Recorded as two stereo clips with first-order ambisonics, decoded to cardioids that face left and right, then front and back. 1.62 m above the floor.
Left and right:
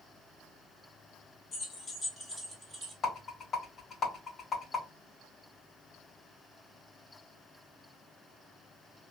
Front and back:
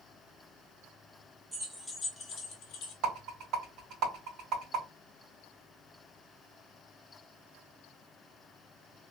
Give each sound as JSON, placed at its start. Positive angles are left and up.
{"t": 1.5, "sound": "keys jangling", "azimuth_deg": 110, "distance_m": 0.8}
{"t": 3.0, "sound": "a rattle", "azimuth_deg": 135, "distance_m": 2.0}